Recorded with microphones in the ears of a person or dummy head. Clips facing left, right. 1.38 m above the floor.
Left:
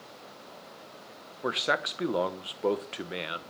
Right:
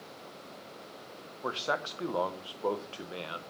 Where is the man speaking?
25° left (ahead or behind), 0.6 m.